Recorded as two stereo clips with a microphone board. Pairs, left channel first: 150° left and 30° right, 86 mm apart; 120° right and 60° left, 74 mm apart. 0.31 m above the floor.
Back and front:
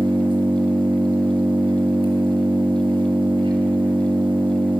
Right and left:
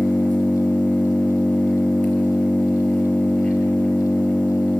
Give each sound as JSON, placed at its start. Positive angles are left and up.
{"t": 0.0, "sound": "an engine running", "azimuth_deg": -50, "distance_m": 5.0}